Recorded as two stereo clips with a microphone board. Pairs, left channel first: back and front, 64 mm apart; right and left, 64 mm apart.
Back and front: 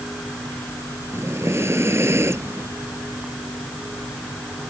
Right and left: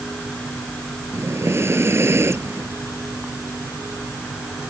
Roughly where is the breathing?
Ahead left.